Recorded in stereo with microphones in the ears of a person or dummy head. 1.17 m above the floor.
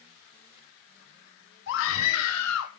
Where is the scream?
65° left (ahead or behind), 2 m; by 2.7 s 75° left (ahead or behind), 2.5 m.